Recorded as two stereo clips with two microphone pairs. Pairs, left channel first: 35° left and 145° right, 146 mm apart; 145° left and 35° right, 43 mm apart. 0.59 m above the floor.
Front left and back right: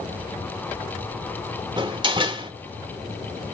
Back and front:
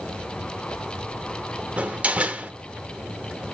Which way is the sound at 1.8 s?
90° right.